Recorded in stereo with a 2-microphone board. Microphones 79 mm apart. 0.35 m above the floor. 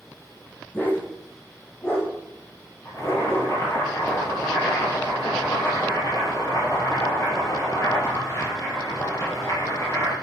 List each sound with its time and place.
0.7 s a dog barking: 25° left (ahead or behind), 6.5 m; by 3.5 s 45° left (ahead or behind), 8 m
2.9 s boiling: 50° left (ahead or behind), 8.5 m